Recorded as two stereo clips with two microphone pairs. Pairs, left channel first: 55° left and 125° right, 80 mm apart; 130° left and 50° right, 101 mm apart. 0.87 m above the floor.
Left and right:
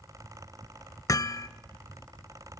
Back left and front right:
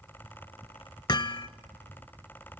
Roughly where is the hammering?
Left.